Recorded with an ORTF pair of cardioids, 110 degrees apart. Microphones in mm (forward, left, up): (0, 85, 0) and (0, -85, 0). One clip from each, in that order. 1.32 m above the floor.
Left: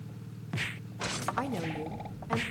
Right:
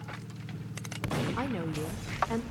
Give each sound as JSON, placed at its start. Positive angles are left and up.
{"t": 1.4, "sound": "a woman speaking", "azimuth_deg": -10, "distance_m": 0.6}